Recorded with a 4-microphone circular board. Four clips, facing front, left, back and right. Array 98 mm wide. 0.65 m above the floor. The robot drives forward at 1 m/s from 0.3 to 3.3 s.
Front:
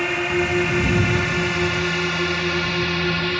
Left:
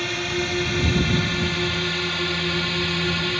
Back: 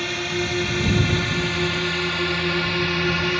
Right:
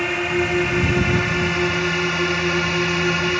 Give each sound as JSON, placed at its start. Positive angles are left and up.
{"t": 0.0, "sound": "a drone", "azimuth_deg": -45}